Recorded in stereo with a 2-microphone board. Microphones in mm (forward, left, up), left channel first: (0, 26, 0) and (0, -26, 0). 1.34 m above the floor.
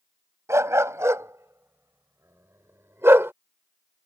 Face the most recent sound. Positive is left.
turn(degrees=-55)  # may be behind; listen again after turning